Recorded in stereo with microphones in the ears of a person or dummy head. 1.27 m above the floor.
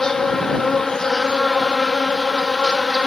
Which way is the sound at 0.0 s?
5° left (ahead or behind).